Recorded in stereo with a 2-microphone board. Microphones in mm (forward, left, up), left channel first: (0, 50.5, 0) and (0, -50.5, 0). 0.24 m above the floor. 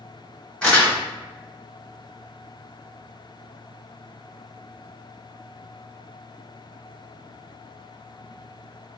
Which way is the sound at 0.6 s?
10° left (ahead or behind).